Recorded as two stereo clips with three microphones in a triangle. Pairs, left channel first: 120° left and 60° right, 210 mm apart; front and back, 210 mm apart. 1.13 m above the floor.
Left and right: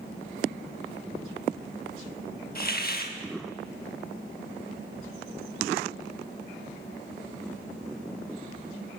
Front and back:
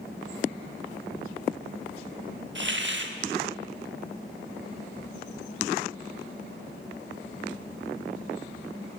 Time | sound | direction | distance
2.5 | a hiss | 160° left | 1.0 m